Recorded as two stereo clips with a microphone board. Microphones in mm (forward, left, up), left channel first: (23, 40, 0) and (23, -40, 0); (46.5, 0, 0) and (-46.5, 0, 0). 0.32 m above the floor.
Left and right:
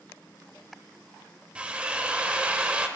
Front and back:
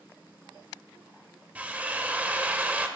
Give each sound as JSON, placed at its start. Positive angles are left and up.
{"t": 1.6, "sound": "a drill", "azimuth_deg": -135, "distance_m": 0.7}